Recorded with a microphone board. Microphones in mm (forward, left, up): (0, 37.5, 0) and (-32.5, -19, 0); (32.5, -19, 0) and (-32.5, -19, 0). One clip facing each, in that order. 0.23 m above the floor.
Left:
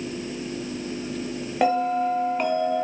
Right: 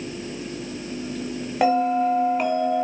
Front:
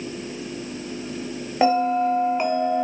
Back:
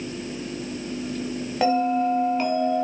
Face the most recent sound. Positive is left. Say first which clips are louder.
# right 2 dB, front 2 dB
turn(degrees=-40)